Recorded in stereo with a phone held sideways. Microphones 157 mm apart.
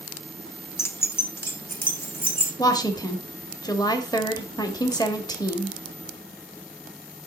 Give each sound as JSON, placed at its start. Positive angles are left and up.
{"t": 0.8, "sound": "keys jangling", "side_deg": 15, "distance_m": 0.6}
{"t": 2.6, "sound": "a woman speaking", "side_deg": 25, "distance_m": 1.1}